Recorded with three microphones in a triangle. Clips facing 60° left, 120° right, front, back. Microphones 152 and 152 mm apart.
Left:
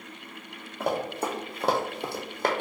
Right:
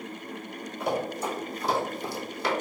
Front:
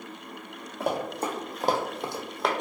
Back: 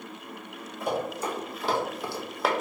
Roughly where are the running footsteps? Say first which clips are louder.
Left 1 dB, front 1 dB; ahead.